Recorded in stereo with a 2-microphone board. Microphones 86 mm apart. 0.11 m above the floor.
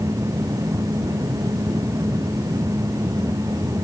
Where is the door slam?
No door slam in this recording.